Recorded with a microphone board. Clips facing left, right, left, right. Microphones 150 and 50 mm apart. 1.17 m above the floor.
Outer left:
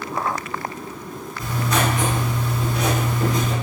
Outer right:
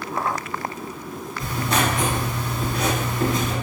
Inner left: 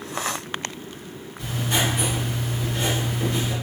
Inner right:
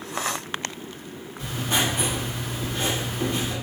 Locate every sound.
1.4 s writing: 30° right (ahead or behind), 1.7 m